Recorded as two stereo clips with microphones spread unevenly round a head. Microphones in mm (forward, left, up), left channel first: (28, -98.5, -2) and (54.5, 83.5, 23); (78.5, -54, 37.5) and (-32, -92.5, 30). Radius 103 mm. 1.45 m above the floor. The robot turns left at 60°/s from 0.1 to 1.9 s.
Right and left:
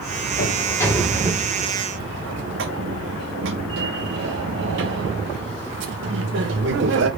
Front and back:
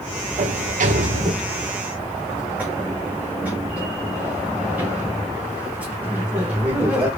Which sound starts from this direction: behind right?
A sliding door, at 0.4 s.